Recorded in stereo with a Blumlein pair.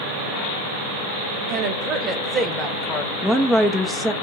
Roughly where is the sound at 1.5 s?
Ahead right.